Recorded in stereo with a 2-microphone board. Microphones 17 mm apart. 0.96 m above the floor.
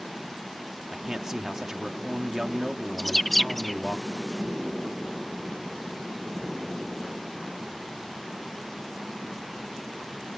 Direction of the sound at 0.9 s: 25° right (ahead or behind).